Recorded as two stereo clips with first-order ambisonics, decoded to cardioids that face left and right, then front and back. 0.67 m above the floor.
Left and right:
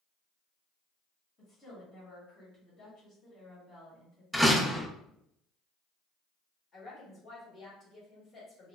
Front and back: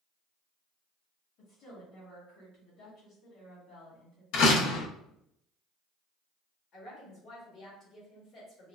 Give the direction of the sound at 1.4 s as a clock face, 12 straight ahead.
11 o'clock.